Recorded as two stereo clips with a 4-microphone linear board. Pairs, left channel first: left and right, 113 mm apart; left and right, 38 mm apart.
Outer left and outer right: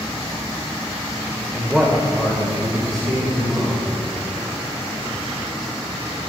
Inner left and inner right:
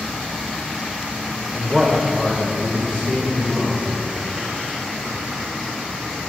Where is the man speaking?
5° right (ahead or behind), 0.9 m; by 4.0 s centre (ahead or behind), 2.5 m.